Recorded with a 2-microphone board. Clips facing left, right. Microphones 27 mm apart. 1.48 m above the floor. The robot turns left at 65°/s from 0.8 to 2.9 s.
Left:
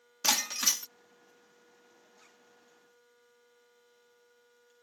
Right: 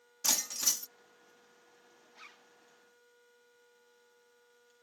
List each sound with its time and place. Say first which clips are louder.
0.2 s breaking glass: left 4 dB; 40° left (ahead or behind)
2.1 s a zipper: right 6 dB; 50° right (ahead or behind); by 2.5 s 35° right (ahead or behind)